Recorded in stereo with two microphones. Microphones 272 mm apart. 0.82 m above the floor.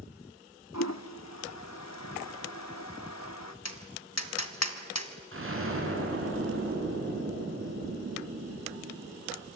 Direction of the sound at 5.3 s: 50° right (ahead or behind).